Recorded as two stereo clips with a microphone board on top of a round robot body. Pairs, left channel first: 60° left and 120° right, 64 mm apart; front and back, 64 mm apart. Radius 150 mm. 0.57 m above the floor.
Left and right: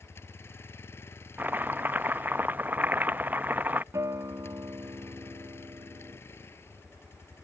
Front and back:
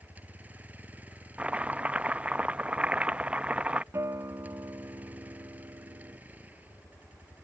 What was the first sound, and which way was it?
A vehicle, 115° left.